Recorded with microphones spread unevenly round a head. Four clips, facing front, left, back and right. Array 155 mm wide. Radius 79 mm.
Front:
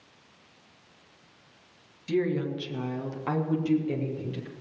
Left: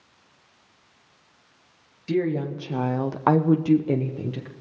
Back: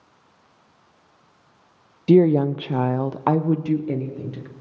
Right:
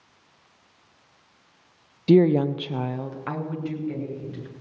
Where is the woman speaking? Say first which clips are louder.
Right 7 dB, back 12 dB; 145° right, 0.6 m; by 4.5 s 105° left, 1.2 m.